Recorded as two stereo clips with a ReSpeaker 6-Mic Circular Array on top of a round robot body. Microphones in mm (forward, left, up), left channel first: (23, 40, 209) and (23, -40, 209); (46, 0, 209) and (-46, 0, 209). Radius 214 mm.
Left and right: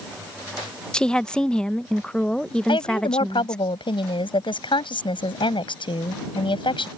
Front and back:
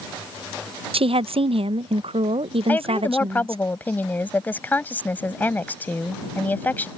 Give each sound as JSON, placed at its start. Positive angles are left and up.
{"t": 0.9, "sound": "a woman speaking", "azimuth_deg": 170}
{"t": 2.7, "sound": "a woman speaking", "azimuth_deg": 75}